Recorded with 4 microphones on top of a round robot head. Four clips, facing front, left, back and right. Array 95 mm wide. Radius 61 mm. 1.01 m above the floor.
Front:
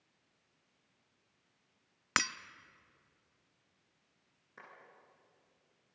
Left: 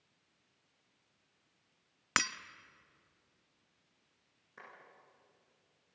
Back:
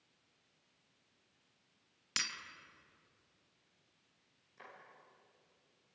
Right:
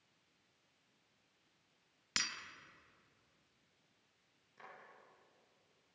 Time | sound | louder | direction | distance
2.2 | breaking glass | left 11 dB, front 11 dB | 40° left | 0.6 m
4.6 | a clap | left 2 dB, front 1 dB | 40° left | 10 m